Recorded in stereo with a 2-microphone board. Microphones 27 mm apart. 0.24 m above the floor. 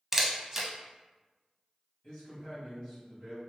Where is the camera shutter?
15° right (ahead or behind), 0.5 m.